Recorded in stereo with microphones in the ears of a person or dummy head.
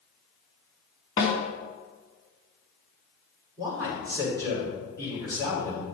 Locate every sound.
1.2 s a snare drum: 20° left (ahead or behind), 2.5 m
3.6 s a man speaking: 20° right (ahead or behind), 5 m